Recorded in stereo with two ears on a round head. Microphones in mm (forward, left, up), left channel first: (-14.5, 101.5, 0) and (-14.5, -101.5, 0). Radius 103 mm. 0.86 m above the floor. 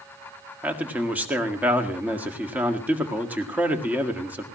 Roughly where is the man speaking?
Centre.